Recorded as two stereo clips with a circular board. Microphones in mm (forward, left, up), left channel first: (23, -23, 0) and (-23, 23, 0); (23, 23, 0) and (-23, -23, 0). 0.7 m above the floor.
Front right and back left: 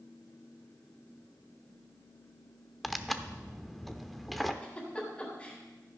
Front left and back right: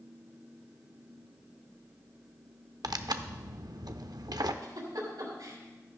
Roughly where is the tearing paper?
Behind right.